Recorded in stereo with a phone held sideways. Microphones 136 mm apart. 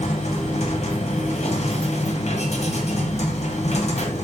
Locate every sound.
0.0 s a machine running: 55° left (ahead or behind), 0.8 m